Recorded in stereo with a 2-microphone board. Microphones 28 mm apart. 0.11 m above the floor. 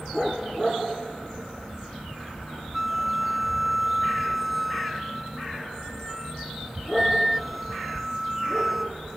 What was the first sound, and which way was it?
A flute, 5° right (ahead or behind).